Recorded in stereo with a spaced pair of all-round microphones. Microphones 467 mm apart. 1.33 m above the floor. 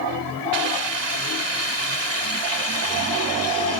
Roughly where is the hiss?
Right.